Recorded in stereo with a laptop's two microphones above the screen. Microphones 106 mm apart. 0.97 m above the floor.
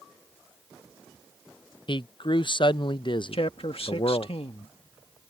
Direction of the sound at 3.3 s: 60° left (ahead or behind).